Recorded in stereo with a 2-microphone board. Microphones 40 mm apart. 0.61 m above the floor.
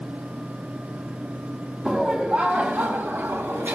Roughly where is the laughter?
Right.